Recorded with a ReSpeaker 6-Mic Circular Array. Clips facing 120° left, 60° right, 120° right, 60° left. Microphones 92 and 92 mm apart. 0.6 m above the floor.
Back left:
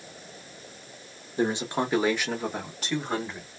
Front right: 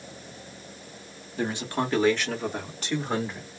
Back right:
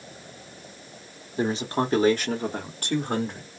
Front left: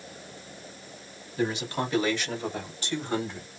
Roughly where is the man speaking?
Behind.